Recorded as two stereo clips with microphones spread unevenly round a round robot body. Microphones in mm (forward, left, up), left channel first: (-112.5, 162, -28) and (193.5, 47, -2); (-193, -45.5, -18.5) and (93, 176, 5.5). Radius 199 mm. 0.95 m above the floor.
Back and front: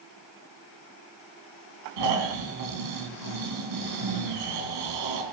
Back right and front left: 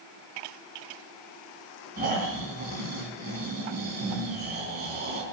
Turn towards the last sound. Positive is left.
turn(degrees=-30)